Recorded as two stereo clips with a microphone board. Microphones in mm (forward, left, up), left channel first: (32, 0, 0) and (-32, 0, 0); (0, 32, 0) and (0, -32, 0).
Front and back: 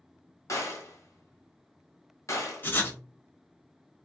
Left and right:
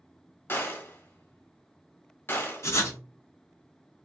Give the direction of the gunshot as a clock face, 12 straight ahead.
11 o'clock.